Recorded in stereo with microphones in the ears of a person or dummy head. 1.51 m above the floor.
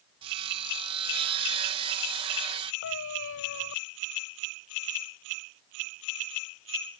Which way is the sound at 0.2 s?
30° right (ahead or behind).